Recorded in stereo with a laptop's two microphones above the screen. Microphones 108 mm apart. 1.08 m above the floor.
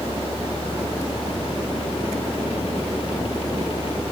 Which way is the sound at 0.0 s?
55° left (ahead or behind).